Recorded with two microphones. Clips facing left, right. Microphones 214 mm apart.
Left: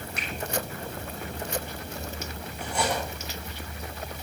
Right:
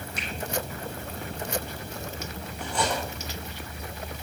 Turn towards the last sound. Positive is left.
turn(degrees=10)  # may be behind; listen again after turning